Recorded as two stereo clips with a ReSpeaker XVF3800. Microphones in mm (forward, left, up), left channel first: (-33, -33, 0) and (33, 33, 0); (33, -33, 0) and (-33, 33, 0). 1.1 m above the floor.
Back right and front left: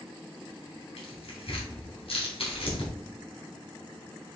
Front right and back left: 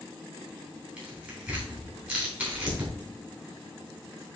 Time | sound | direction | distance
1.0 | tearing paper | 150° right | 3.5 m